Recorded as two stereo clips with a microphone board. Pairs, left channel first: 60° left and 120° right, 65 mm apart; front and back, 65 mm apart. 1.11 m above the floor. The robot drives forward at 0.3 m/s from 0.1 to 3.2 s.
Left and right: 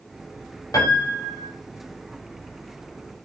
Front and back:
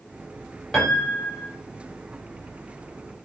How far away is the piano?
About 4 m.